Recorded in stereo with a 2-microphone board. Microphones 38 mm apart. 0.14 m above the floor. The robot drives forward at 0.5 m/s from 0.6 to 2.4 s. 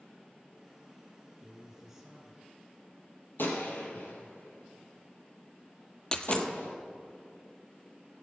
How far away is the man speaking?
About 5 m.